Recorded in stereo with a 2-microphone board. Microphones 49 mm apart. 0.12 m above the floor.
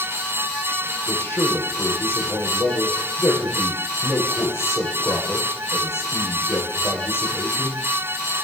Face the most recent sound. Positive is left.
turn(degrees=55)  # may be behind; listen again after turning